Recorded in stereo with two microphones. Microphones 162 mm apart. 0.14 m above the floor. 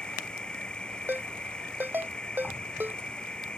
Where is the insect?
5° left (ahead or behind).